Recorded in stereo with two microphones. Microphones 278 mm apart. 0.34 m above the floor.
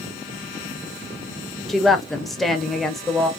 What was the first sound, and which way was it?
A woman speaking, centre (ahead or behind).